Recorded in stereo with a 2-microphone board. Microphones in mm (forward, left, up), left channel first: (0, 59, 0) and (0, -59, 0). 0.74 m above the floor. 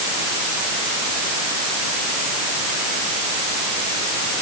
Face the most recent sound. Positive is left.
No sound to turn to.